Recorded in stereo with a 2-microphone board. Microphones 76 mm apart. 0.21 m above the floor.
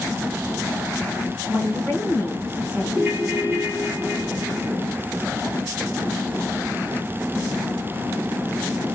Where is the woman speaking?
20° left (ahead or behind), 1.4 m.